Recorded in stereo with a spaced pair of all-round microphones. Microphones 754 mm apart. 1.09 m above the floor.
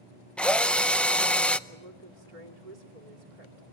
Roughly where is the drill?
Centre.